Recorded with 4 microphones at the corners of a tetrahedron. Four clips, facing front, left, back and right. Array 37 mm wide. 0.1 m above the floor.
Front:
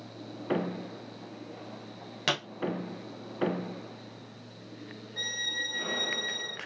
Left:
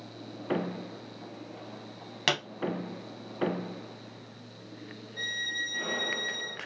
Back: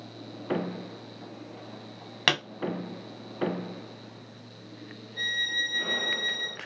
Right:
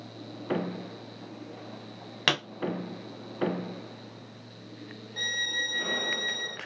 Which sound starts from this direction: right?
A violin, at 5.2 s.